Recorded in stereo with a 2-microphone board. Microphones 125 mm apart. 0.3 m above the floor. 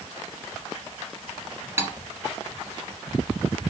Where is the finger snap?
I don't hear a finger snap.